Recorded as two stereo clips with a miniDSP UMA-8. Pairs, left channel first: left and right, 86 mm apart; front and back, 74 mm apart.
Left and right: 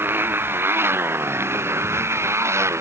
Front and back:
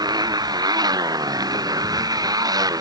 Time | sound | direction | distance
0.0 | a motorcycle | 155° right | ?